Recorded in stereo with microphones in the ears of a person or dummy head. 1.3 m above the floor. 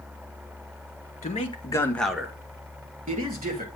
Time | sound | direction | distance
1.2 | a man speaking | 30° left (ahead or behind) | 1.8 m